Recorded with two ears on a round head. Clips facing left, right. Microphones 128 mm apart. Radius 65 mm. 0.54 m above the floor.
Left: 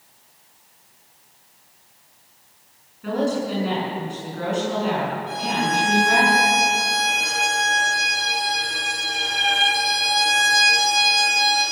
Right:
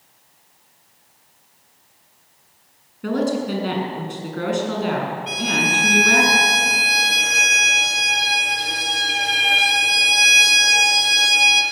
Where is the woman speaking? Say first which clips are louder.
Right 2 dB; 60° right (ahead or behind), 6.5 m.